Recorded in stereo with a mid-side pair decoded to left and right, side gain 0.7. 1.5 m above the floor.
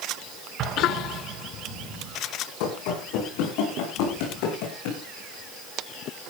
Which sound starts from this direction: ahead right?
An explosion, at 0.6 s.